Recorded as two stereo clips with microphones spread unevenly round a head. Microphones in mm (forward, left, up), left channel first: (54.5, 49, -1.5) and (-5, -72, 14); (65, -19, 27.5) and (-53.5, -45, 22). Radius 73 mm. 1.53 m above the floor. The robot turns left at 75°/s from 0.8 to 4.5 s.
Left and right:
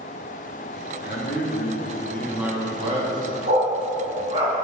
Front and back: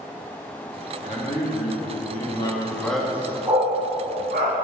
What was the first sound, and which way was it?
A man speaking, 70° left.